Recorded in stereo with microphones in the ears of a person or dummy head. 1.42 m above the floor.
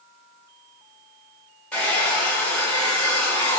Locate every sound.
1.7 s a hair dryer: 5° left (ahead or behind), 1.1 m